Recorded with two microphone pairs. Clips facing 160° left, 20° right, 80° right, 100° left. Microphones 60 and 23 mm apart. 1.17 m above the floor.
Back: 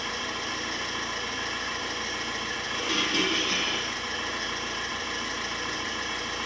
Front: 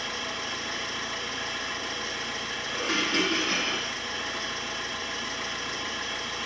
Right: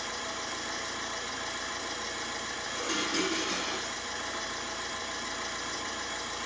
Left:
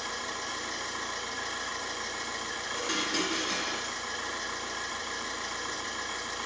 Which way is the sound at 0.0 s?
145° left.